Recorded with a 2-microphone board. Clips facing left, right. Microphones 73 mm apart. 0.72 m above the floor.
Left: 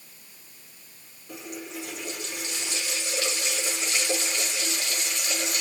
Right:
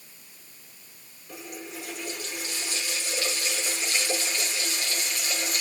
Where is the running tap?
20° left (ahead or behind), 6 m.